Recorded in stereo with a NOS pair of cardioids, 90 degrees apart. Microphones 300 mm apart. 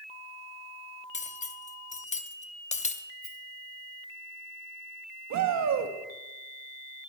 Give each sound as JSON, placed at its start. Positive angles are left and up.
{"t": 1.1, "sound": "cutlery clinking", "azimuth_deg": 25, "distance_m": 1.0}
{"t": 3.2, "sound": "a rattle", "azimuth_deg": -30, "distance_m": 4.0}
{"t": 5.3, "sound": "a shout", "azimuth_deg": -70, "distance_m": 1.6}